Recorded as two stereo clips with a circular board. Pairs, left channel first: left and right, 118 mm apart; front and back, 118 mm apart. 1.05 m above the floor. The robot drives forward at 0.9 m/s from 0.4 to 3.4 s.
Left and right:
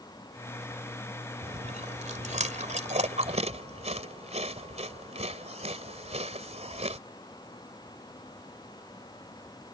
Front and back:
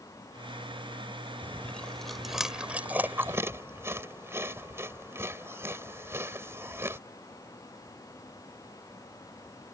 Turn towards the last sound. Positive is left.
turn(degrees=-110)